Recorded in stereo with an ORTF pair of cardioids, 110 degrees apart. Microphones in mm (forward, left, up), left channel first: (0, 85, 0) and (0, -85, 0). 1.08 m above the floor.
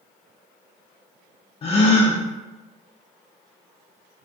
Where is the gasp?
35° left, 0.5 m.